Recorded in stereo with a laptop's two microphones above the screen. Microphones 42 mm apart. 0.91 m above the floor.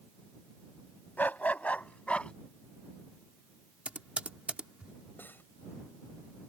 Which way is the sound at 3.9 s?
30° right (ahead or behind).